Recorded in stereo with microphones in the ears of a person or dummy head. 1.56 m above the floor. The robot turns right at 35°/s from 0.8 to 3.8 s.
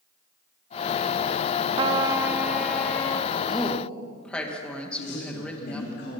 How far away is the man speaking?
About 2.5 m.